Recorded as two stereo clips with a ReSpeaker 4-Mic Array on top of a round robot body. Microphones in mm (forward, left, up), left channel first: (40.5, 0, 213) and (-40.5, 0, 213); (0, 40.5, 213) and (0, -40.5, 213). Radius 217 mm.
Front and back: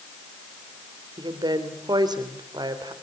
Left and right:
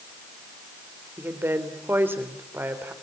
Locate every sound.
1.2 s a woman speaking: 150° right, 4 m